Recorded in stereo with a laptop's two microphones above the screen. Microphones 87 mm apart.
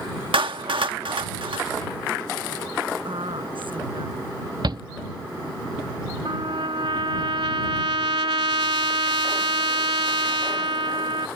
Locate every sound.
0.3 s a clap: 75° right (ahead or behind)
3.0 s a woman speaking: 80° right
4.6 s a shout: 60° right (ahead or behind)
6.2 s a trumpet: 85° right